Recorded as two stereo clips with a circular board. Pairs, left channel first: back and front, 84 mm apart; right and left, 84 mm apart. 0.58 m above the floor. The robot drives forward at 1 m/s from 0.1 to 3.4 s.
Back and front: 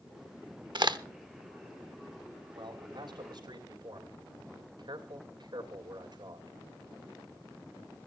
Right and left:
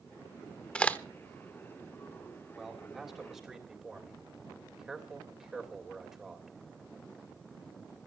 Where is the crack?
15° right, 0.9 m; by 1.0 s 20° right, 0.7 m.